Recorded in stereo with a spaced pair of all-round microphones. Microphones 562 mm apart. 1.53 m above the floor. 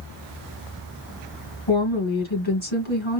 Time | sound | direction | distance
1.7 | a woman speaking | 55° left (ahead or behind) | 2 m